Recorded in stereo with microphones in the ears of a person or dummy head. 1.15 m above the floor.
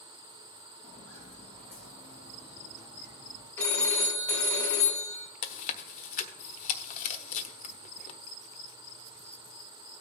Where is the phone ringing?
15° left (ahead or behind), 1.9 m.